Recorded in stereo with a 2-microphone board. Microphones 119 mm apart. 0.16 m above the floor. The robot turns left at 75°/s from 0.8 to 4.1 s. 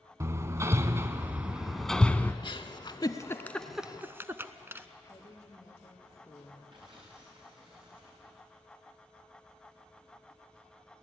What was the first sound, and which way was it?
Hammering, 25° right (ahead or behind).